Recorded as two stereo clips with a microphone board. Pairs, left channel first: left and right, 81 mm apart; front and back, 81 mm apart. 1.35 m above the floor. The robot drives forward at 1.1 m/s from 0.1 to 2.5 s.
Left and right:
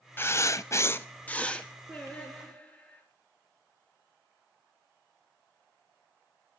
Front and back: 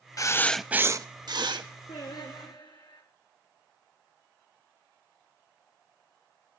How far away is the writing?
About 0.7 m.